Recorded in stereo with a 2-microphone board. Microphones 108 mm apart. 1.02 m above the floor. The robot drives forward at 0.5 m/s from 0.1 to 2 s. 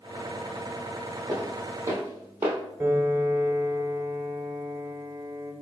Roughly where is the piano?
Right.